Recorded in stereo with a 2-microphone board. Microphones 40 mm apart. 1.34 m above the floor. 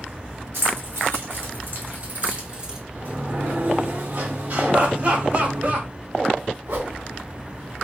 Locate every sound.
0.5 s keys jangling: 75° right (ahead or behind), 2 m; by 2.8 s 15° right (ahead or behind), 1.1 m
3.0 s a sliding door: 50° right (ahead or behind), 1.0 m
4.7 s laughter: 45° right (ahead or behind), 1.6 m
6.7 s a whoosh: 65° right (ahead or behind), 2.5 m